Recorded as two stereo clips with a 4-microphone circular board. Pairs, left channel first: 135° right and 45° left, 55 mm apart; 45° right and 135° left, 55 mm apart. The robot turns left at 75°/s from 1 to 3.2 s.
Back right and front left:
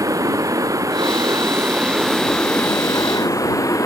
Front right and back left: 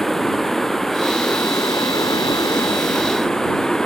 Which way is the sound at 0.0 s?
40° left.